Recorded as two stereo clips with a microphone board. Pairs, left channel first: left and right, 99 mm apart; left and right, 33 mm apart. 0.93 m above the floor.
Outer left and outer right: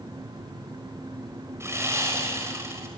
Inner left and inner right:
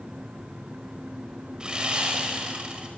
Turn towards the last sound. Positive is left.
turn(degrees=-30)  # may be behind; listen again after turning